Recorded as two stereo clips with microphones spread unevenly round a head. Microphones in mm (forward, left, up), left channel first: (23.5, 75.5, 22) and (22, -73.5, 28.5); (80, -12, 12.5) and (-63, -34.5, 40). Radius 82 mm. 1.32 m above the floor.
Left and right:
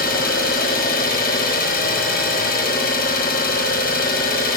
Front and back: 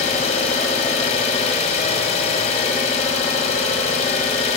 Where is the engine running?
60° left, 4.5 m.